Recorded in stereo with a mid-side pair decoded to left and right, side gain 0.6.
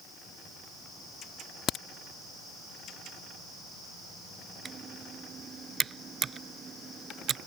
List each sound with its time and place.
1.7 s a crack: 55° left
4.7 s typing on a keyboard: 35° right